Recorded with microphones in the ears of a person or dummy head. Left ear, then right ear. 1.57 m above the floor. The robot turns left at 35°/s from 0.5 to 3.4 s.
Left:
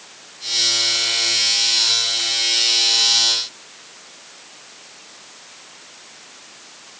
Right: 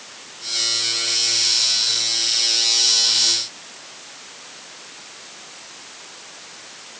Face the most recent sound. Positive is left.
No sound to turn to.